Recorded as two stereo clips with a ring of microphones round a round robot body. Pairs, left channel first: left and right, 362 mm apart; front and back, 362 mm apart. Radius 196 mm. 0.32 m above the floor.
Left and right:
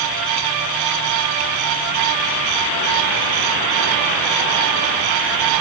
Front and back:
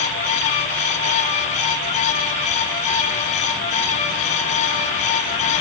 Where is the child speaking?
No child speaking in this recording.